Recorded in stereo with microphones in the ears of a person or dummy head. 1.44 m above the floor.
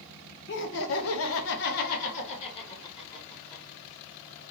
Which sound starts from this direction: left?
Laughter, at 0.5 s.